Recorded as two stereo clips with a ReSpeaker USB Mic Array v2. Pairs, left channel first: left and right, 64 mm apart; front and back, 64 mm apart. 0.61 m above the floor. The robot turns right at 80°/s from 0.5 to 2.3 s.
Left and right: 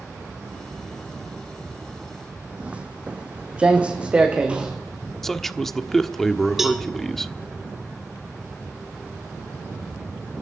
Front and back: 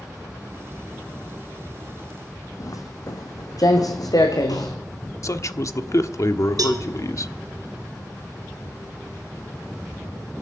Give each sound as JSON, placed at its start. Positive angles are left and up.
{"t": 2.6, "sound": "footsteps", "azimuth_deg": -20, "distance_m": 1.9}
{"t": 5.2, "sound": "a man speaking", "azimuth_deg": 5, "distance_m": 1.1}
{"t": 6.6, "sound": "a cowbell", "azimuth_deg": -175, "distance_m": 3.0}